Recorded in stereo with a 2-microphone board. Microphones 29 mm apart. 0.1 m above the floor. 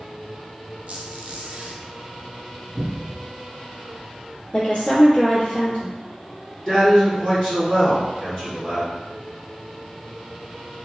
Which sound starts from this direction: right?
A squeak, at 0.9 s.